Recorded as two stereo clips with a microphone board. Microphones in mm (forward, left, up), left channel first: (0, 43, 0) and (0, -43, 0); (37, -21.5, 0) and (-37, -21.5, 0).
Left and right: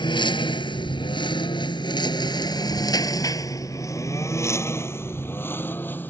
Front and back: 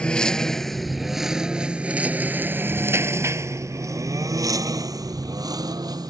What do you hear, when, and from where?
0.0 s a lawn mower: 75° left; by 6.1 s 155° left